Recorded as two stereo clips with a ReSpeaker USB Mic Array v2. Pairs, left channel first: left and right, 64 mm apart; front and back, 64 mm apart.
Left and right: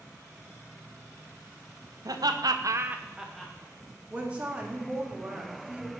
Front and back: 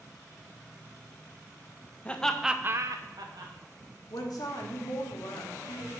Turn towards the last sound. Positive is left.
turn(degrees=-20)